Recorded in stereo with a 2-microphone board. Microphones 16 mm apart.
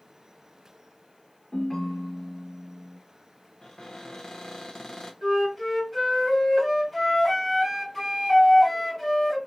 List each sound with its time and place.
1.5 s a ringtone: 50° left (ahead or behind), 2 m
3.6 s a cupboard door: 55° left (ahead or behind), 1.4 m
5.2 s a flute: 25° left (ahead or behind), 3.5 m